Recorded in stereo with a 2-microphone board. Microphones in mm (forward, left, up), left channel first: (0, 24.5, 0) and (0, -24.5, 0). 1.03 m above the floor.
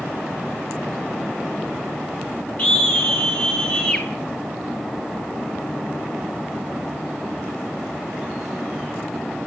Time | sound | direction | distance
2.6 | a scream | 35° left (ahead or behind) | 4 m